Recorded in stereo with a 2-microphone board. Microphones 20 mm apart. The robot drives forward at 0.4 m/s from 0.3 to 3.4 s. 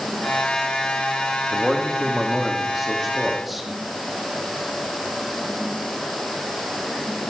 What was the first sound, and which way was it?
A man speaking, 15° right (ahead or behind).